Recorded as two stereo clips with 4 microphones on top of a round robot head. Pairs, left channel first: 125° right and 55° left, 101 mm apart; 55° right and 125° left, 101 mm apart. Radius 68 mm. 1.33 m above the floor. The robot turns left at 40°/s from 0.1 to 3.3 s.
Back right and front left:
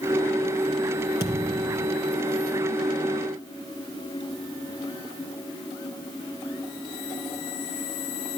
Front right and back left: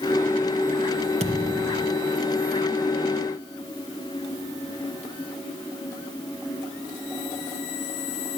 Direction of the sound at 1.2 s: 115° left.